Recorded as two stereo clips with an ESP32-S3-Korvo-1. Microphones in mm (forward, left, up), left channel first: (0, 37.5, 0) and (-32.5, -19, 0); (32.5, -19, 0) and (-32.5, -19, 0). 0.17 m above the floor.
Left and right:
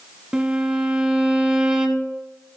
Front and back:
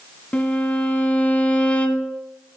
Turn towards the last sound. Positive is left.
turn(degrees=-50)